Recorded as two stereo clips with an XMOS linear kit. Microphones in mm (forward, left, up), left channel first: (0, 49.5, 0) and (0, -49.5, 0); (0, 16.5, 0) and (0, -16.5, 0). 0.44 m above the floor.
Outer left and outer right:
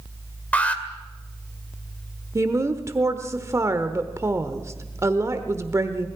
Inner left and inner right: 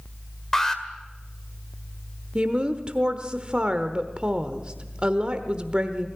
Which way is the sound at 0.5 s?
15° left (ahead or behind).